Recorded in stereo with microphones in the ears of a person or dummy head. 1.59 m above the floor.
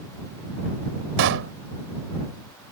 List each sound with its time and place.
1.2 s a pop: 75° right (ahead or behind)